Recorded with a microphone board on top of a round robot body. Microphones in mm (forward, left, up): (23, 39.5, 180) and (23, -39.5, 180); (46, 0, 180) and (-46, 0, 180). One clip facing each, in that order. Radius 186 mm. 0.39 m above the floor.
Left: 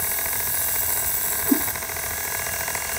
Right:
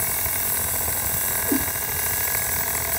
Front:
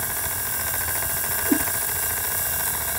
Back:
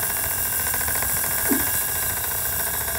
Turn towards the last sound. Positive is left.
turn(degrees=135)